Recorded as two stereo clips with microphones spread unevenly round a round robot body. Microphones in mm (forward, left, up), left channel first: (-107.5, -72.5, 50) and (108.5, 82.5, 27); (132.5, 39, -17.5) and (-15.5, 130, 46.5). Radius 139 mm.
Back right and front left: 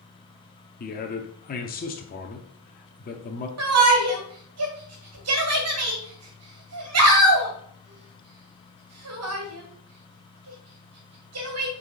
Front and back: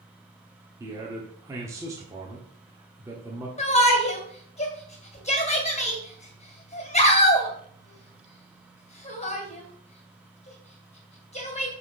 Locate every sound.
0.8 s a man speaking: 115° right, 0.9 m
3.6 s a shout: 10° left, 2 m